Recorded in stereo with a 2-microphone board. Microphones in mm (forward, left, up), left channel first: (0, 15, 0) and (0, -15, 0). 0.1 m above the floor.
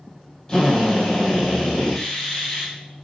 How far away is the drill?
About 3 m.